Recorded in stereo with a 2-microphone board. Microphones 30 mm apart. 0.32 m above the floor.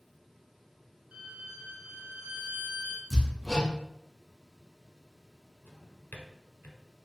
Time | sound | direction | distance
1.1 | a violin | 60° right (ahead or behind) | 1.4 m
3.1 | hammering | centre (ahead or behind) | 1.3 m
5.7 | a drawer | 80° left | 0.8 m